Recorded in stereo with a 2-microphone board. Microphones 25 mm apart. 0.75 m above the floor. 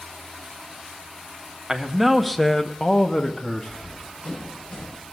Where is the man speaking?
15° right (ahead or behind), 1.2 m; by 4.0 s 40° left (ahead or behind), 1.7 m.